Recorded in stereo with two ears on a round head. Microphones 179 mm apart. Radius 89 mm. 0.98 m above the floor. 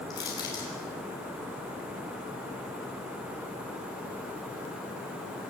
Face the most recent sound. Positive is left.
turn(degrees=20)  # may be behind; listen again after turning